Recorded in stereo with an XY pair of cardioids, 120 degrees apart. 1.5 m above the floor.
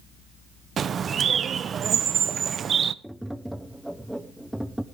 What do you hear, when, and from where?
0.8 s a bird: 40° right, 0.7 m
3.0 s tapping: straight ahead, 1.0 m